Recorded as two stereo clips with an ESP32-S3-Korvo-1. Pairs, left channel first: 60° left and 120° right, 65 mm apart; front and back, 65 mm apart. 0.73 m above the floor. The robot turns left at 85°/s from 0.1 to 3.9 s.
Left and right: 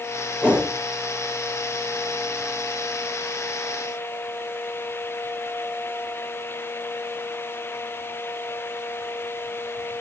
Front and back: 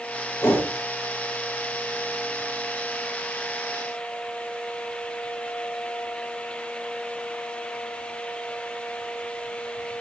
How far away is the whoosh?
About 8 m.